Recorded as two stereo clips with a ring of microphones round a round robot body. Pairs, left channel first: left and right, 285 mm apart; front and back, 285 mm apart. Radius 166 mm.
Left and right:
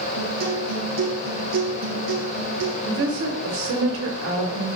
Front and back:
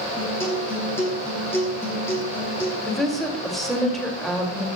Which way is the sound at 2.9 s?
90° right.